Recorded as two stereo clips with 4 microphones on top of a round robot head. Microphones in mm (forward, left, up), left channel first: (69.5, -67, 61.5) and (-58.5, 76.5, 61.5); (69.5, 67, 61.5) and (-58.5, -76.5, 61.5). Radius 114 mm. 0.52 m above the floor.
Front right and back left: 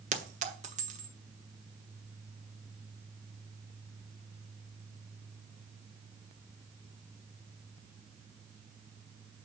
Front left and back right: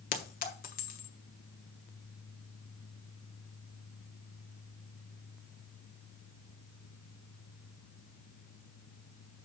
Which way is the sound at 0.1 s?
85° left.